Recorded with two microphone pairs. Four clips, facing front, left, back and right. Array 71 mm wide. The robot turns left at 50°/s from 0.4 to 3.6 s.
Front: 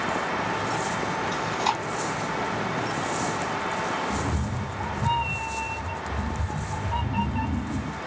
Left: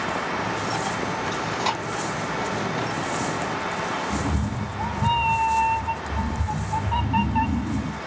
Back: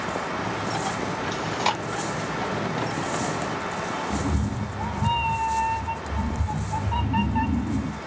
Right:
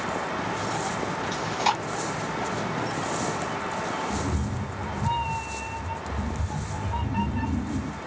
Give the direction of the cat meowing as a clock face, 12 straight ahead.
9 o'clock.